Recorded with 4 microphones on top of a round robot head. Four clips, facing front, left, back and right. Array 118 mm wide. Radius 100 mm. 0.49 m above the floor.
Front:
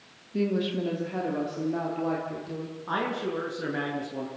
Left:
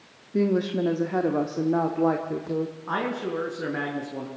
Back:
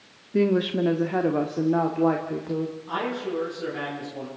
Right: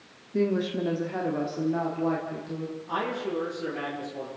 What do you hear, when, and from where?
0.3 s a woman speaking: 160° left, 1.5 m; by 2.8 s 125° left, 2.5 m
2.9 s a man speaking: 60° left, 7 m